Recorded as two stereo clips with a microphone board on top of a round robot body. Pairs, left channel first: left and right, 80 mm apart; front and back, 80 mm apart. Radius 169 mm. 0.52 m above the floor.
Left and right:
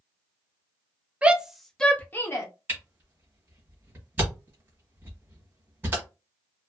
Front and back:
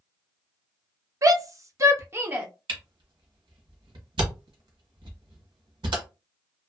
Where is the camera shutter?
160° right, 1.0 m.